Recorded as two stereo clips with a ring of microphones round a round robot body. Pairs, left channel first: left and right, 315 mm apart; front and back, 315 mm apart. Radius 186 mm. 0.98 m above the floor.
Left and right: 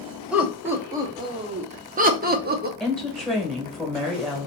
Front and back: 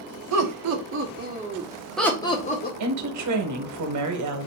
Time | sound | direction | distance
0.3 | laughter | 175° right | 1.2 m
2.8 | a woman speaking | straight behind | 1.1 m